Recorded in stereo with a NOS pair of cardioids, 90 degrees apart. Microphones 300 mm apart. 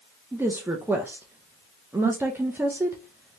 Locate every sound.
0.3 s a woman speaking: 10° right, 0.6 m